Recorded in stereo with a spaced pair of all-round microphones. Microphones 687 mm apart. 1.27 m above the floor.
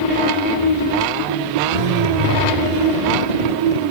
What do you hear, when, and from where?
1.7 s a zipper: 65° right (ahead or behind)